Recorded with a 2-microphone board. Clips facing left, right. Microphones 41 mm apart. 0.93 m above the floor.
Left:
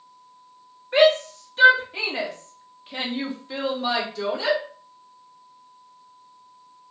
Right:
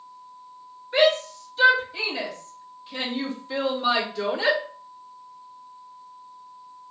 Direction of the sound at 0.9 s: 55° left (ahead or behind).